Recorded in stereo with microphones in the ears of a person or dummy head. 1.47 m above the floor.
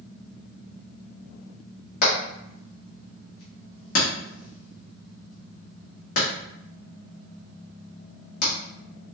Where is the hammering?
50° left (ahead or behind), 1.7 m.